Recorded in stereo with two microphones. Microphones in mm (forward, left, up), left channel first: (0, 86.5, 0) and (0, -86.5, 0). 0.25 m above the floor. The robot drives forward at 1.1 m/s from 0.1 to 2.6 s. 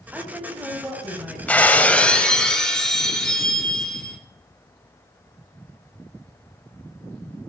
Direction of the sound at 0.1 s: 10° right (ahead or behind).